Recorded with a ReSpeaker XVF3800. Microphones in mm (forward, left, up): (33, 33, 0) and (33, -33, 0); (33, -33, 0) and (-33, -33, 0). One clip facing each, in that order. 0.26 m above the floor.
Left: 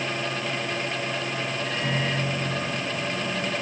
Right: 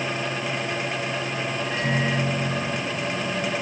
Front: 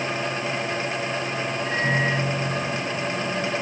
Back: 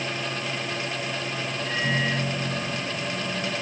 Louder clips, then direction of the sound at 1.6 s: Right 4 dB, front 3 dB; 50° left.